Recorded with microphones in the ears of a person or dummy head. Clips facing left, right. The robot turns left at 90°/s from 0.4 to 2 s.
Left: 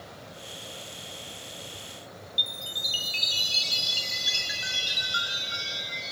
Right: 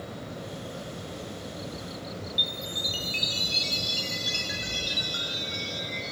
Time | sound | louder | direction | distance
2.4 | a chime | right 7 dB | centre (ahead or behind) | 0.8 m